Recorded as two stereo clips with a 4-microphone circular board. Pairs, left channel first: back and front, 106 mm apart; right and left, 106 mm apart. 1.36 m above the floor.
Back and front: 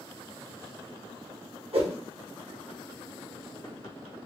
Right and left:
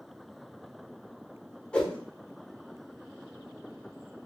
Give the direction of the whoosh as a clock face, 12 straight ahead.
12 o'clock.